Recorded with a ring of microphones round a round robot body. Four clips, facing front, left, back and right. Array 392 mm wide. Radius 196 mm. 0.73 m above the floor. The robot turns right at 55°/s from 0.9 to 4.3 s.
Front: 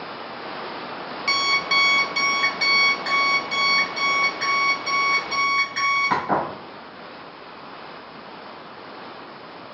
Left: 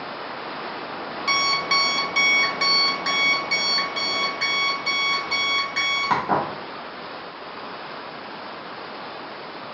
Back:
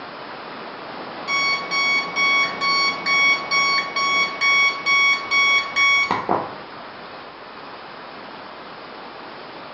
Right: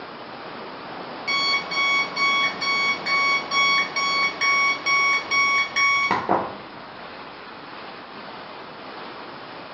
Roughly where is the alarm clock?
Ahead left.